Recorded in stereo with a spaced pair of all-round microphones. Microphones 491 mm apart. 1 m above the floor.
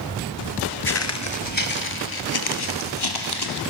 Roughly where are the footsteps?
Left.